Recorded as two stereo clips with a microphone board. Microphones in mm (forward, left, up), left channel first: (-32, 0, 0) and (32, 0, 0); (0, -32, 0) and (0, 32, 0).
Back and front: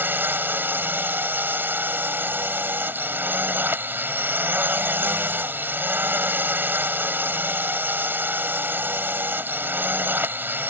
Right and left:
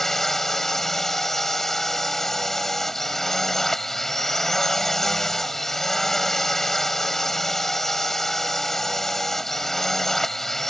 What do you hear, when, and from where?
0.0 s a drone: 10° right